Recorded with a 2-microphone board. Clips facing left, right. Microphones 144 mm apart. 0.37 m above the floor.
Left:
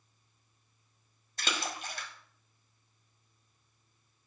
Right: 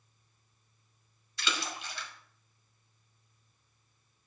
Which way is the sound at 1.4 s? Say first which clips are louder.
Left 1 dB; 45° left (ahead or behind).